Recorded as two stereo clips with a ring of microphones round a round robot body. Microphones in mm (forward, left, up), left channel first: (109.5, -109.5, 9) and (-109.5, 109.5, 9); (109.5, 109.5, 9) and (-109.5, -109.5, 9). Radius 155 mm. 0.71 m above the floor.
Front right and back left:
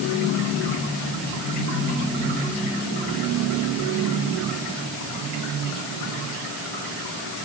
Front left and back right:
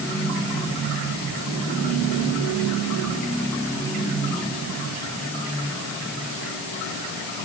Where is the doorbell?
I don't hear a doorbell.